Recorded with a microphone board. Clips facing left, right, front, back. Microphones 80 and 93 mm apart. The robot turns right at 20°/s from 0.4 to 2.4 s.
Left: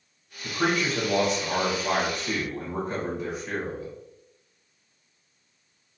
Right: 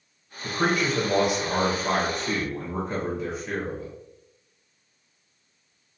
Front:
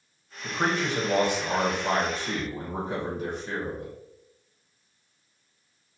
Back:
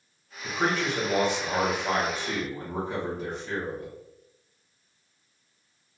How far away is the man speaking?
About 0.9 m.